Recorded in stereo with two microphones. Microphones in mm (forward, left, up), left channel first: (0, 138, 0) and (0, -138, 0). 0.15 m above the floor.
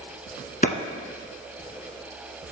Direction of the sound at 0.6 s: 30° left (ahead or behind).